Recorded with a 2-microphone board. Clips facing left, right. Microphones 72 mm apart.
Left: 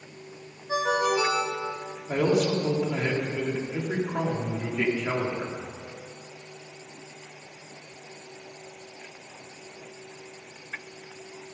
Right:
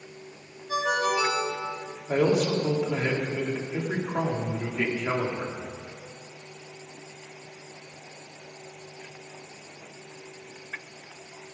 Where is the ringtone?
25° left (ahead or behind), 3 m.